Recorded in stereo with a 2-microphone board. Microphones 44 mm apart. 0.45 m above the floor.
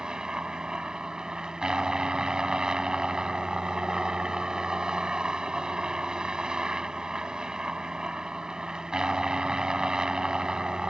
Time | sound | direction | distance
0.0 | a helicopter | 15° right (ahead or behind) | ?